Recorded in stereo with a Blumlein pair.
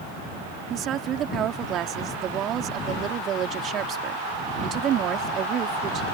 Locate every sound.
0.7 s a woman speaking: 30° right